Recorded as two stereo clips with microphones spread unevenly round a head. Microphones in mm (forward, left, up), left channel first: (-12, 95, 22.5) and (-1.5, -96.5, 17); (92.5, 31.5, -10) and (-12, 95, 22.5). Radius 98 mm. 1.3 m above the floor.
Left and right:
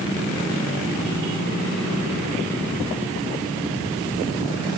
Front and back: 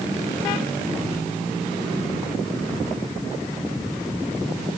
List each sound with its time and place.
Only background noise.